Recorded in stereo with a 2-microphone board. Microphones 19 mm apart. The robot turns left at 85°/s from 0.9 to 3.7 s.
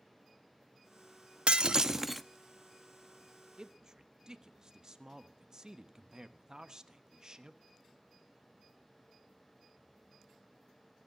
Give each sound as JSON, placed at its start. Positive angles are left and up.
{"t": 1.5, "sound": "breaking glass", "azimuth_deg": -115, "distance_m": 0.6}
{"t": 3.6, "sound": "a man speaking", "side_deg": -40, "distance_m": 1.0}